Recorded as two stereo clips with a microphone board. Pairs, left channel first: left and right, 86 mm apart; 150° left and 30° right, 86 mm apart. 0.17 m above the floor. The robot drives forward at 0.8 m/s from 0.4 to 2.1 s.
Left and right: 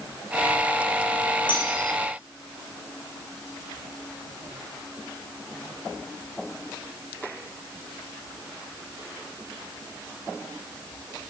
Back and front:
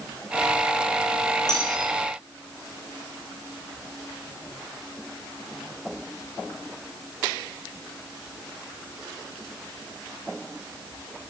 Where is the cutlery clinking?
110° left, 8 m; by 1.9 s 115° left, 8 m.